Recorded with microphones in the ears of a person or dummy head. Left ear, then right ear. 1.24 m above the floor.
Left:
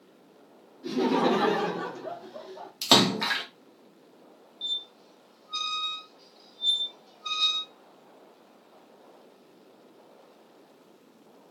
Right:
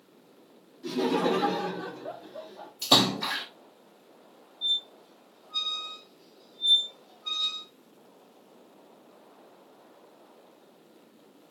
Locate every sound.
0.8 s laughter: 10° right (ahead or behind), 0.7 m; by 2.7 s 80° left, 1.1 m
2.8 s a splash: 55° left (ahead or behind), 0.9 m
4.6 s a squeak: 40° left (ahead or behind), 0.7 m